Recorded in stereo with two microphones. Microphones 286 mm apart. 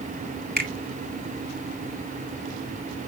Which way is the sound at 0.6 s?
35° right (ahead or behind).